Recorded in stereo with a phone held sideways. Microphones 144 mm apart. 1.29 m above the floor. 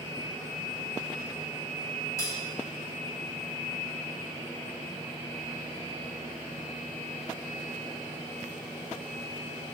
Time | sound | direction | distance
2.2 | cutlery clinking | 20° left (ahead or behind) | 1.5 m